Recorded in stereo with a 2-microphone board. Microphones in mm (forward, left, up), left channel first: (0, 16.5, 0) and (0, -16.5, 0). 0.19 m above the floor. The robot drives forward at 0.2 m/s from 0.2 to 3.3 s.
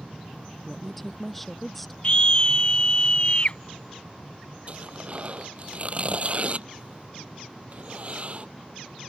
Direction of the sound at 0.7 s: Centre (ahead or behind).